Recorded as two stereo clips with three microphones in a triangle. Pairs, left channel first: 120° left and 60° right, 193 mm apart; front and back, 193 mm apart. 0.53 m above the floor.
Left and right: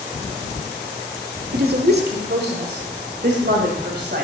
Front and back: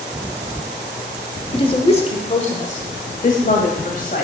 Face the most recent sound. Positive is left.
turn(degrees=-35)